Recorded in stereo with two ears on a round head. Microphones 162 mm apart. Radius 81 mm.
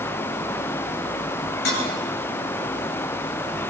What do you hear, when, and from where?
1.6 s dishes clattering: 55° left (ahead or behind), 7 m